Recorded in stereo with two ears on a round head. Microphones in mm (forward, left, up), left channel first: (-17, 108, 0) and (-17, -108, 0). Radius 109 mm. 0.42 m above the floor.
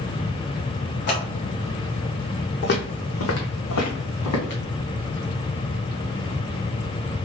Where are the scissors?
45° left (ahead or behind), 1.8 m.